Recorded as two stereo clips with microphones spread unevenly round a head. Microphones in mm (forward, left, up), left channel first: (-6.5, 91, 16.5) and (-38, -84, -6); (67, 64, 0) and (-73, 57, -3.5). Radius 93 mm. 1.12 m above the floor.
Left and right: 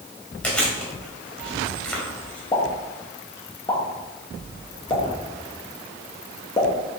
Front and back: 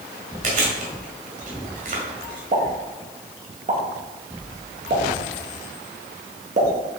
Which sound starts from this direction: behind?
Chewing, at 0.4 s.